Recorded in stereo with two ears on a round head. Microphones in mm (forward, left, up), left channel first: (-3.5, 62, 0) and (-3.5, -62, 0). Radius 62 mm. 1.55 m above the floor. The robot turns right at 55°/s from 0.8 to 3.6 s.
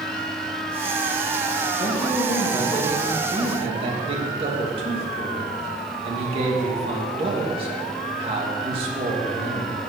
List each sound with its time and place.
1.8 s a man speaking: 120° left, 2.5 m; by 9.8 s 140° right, 2.5 m